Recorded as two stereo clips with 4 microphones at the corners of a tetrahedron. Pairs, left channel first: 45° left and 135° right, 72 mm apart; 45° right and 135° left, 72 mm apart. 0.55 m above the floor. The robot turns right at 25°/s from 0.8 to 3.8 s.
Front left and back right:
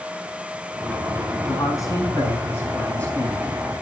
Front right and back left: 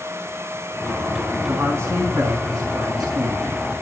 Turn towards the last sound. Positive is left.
turn(degrees=140)